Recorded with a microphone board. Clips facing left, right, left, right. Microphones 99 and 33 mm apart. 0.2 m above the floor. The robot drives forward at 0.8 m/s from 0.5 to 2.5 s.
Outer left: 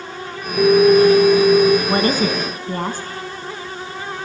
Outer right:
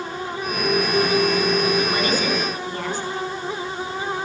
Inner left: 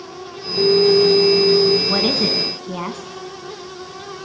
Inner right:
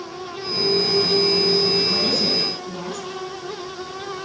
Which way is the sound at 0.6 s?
60° left (ahead or behind).